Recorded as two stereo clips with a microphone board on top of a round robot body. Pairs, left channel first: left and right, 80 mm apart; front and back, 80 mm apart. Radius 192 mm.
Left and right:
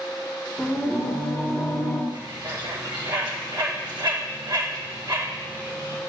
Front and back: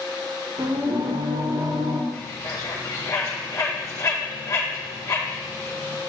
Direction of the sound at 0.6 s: Straight behind.